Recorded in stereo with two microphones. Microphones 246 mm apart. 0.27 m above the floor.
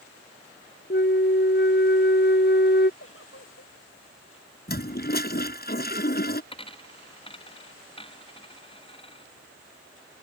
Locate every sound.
0.9 s a flute: 40° left (ahead or behind)
3.0 s a giggle: 55° left (ahead or behind)
4.7 s a toilet flushing: 40° left (ahead or behind)
6.5 s a dropped coin: 20° left (ahead or behind)